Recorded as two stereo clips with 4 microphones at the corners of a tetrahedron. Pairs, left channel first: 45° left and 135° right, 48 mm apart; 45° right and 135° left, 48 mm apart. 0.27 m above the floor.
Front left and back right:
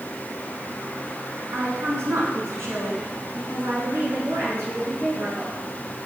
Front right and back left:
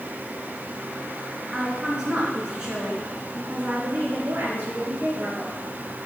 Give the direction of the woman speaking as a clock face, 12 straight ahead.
5 o'clock.